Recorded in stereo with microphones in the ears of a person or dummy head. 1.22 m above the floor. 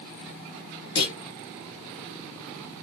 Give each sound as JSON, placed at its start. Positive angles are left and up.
{"t": 0.9, "sound": "a clunk", "side_deg": 60, "distance_m": 1.1}